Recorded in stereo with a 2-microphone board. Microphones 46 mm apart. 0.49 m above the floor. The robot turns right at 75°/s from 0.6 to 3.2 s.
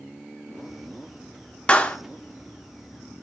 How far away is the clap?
About 0.8 m.